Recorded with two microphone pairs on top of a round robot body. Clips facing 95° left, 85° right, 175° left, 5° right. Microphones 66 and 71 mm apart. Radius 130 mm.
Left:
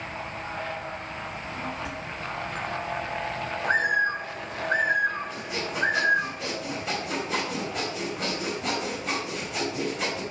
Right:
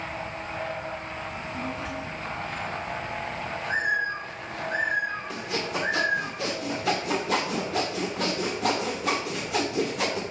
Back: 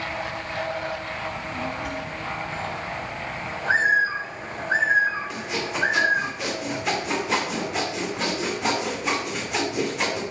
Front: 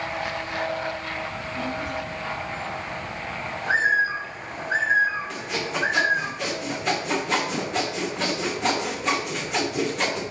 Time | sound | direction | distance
1.3 | a child speaking | 175° right | 5 m
3.6 | a bird | 115° left | 2.5 m
5.3 | sawing | 100° right | 2 m